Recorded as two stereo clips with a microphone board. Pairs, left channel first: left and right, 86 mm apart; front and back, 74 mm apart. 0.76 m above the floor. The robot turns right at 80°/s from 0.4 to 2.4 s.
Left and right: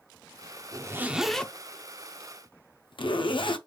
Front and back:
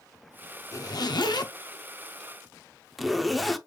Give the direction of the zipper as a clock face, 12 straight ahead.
2 o'clock.